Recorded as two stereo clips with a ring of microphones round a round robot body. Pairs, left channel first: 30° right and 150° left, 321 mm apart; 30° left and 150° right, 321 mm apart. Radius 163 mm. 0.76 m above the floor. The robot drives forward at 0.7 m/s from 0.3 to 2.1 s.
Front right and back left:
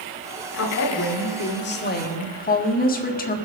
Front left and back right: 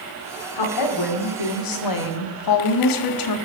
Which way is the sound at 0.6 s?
20° left.